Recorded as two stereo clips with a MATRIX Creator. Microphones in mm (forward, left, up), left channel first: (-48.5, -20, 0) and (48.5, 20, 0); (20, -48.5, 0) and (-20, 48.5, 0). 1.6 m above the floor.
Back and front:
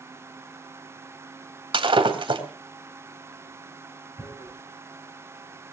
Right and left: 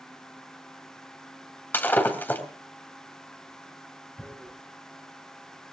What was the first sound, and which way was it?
Breaking glass, straight ahead.